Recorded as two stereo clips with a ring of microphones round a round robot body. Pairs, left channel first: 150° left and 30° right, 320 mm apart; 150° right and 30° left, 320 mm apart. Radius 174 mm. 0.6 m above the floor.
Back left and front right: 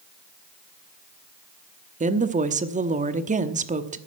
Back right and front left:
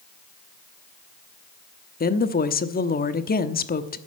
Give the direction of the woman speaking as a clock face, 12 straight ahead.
3 o'clock.